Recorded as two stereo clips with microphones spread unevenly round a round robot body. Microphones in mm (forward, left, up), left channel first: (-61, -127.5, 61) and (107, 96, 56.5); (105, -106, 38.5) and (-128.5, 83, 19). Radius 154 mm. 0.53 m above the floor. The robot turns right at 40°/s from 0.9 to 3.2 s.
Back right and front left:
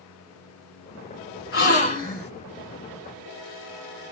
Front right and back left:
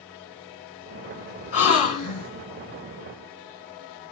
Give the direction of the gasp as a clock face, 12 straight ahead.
3 o'clock.